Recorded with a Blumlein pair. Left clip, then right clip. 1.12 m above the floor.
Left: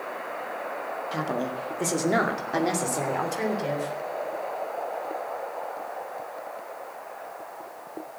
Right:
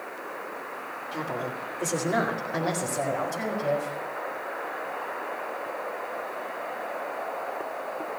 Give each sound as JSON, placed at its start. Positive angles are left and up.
{"t": 1.1, "sound": "a woman speaking", "azimuth_deg": 70, "distance_m": 1.5}